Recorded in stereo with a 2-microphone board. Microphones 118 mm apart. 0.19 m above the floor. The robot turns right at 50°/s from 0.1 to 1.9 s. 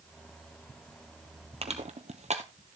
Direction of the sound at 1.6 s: 55° right (ahead or behind).